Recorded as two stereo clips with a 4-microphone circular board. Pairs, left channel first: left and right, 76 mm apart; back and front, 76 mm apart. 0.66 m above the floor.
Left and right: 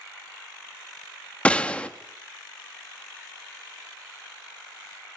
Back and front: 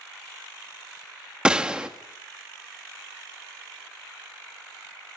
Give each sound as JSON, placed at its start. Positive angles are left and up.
{"t": 1.4, "sound": "a gunshot", "azimuth_deg": 50, "distance_m": 1.1}